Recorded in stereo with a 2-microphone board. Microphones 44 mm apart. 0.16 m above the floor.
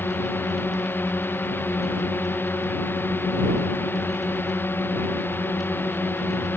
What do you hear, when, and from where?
0.0 s a drone: 50° left (ahead or behind)